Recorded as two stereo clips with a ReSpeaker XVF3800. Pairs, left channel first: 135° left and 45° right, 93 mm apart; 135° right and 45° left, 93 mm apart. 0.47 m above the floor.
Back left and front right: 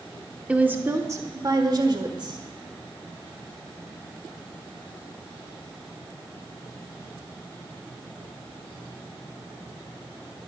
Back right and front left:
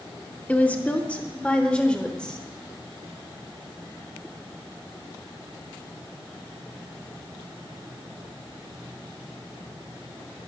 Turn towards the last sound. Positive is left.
turn(degrees=-55)